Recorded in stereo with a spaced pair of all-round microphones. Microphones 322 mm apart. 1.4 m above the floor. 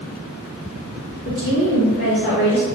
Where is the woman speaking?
35° left (ahead or behind), 3.5 m; by 2.6 s 55° left (ahead or behind), 3 m.